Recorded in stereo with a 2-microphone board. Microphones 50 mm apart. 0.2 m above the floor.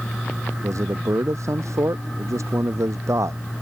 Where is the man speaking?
85° right.